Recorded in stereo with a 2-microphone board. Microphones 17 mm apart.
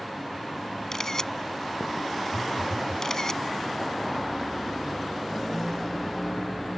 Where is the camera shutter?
30° left (ahead or behind).